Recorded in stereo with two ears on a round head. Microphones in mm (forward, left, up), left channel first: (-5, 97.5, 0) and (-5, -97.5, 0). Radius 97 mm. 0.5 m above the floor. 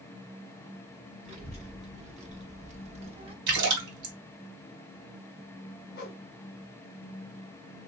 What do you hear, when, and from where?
1.2 s a child speaking: 30° right (ahead or behind), 1.9 m; by 3.4 s 25° right (ahead or behind), 0.9 m
3.5 s a splash: 60° right (ahead or behind), 1.7 m
6.0 s a whoosh: 45° left (ahead or behind), 1.3 m